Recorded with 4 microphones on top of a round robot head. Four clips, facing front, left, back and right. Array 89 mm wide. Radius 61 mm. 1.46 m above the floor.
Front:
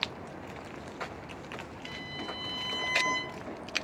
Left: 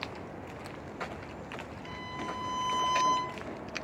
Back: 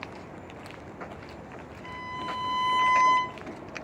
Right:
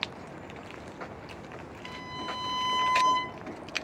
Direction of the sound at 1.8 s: 145° right.